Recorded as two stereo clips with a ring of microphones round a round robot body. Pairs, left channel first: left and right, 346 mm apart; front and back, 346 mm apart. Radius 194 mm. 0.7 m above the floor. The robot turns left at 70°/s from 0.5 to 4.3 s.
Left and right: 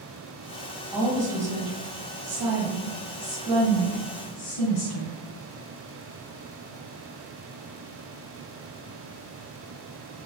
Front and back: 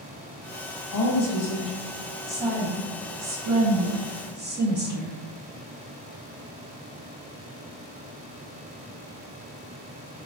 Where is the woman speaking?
Straight ahead, 1.1 m; by 5.2 s 120° left, 1.1 m.